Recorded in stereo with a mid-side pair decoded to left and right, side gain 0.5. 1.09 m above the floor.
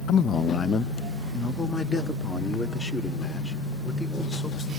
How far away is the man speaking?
About 0.5 m.